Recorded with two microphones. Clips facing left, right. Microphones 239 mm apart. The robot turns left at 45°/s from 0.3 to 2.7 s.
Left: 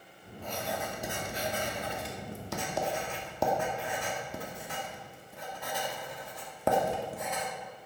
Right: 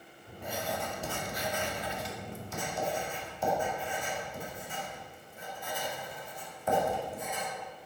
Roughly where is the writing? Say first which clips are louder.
Even; centre.